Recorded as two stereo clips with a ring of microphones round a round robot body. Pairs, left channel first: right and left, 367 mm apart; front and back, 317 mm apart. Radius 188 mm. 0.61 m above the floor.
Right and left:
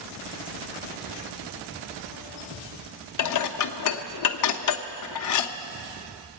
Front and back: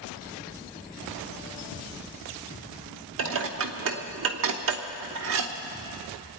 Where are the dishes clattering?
130° right, 0.8 m.